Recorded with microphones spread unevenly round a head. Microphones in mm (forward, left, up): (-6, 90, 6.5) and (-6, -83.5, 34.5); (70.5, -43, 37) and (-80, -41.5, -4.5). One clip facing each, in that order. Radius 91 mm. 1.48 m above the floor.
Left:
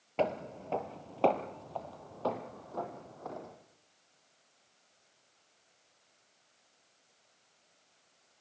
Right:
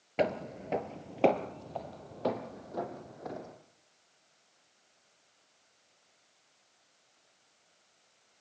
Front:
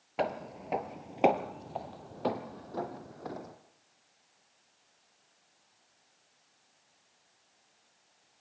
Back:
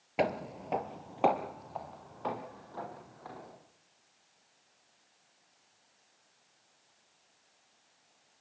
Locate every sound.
0.2 s footsteps: 95° right, 1.5 m; by 3.5 s 20° right, 4 m